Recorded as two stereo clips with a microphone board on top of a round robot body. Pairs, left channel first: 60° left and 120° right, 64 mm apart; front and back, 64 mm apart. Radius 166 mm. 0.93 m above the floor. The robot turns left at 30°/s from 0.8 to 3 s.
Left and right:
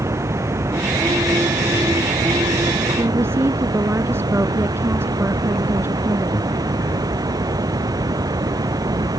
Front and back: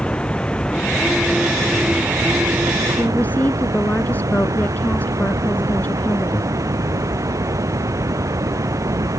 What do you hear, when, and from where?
0.0 s running water: 75° right; by 9.2 s 140° right
3.0 s a woman speaking: 65° right